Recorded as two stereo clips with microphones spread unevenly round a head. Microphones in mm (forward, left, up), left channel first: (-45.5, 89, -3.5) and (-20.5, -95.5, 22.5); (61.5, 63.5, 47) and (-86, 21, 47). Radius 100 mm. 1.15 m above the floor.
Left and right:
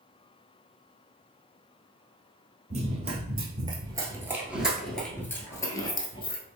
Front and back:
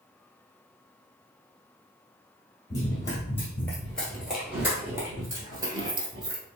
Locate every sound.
2.7 s running footsteps: 50° right, 1.5 m; by 6.4 s 155° left, 1.4 m